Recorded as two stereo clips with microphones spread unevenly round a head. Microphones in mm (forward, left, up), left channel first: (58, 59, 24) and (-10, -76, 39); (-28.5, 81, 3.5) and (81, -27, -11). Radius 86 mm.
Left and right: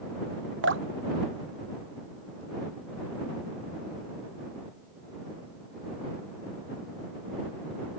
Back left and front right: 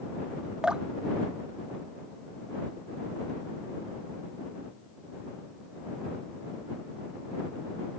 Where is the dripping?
130° right.